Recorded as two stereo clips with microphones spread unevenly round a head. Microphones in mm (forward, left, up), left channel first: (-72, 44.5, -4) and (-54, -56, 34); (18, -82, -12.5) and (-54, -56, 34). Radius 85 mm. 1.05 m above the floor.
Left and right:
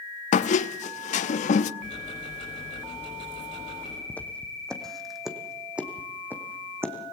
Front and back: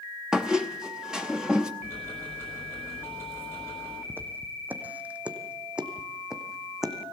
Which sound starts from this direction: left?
A squeak, at 0.3 s.